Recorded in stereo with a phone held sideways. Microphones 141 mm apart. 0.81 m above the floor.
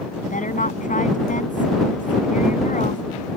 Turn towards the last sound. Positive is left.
turn(degrees=70)  # may be behind; listen again after turning